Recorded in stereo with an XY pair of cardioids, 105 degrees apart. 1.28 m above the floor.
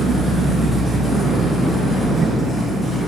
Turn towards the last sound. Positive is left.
turn(degrees=0)